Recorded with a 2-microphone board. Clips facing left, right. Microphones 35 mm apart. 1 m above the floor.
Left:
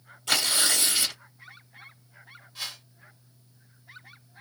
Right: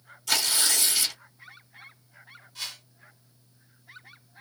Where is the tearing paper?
25° left (ahead or behind), 1.2 m.